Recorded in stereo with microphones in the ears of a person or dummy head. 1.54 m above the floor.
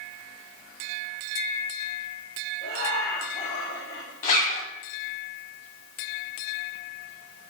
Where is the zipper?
45° left (ahead or behind), 2.5 m.